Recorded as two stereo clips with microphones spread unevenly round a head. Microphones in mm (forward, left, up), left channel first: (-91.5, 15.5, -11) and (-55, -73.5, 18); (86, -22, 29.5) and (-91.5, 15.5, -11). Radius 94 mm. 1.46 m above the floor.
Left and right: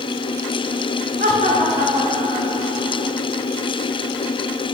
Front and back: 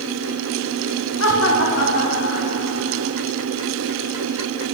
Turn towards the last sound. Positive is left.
turn(degrees=-25)